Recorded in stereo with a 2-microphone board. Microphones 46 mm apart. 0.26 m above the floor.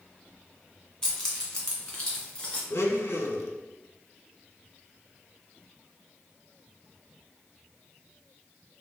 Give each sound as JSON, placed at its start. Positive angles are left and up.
{"t": 1.0, "sound": "keys jangling", "side_deg": 15, "distance_m": 1.6}
{"t": 2.7, "sound": "a blender", "side_deg": 80, "distance_m": 0.6}